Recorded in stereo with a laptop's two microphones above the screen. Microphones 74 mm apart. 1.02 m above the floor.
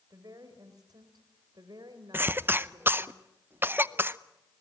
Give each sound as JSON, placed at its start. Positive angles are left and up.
{"t": 0.1, "sound": "a woman speaking", "side_deg": -60, "distance_m": 3.5}
{"t": 2.1, "sound": "a cough", "side_deg": -30, "distance_m": 0.7}